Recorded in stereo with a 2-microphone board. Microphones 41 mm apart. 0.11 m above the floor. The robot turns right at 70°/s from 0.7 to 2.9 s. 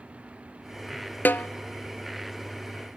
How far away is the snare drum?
About 0.5 m.